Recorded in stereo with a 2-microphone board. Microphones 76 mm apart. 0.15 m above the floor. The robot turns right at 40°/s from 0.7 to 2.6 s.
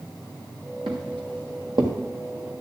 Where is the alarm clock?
No alarm clock in this recording.